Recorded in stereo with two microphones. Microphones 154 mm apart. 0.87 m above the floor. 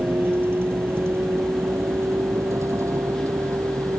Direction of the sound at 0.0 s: 15° right (ahead or behind).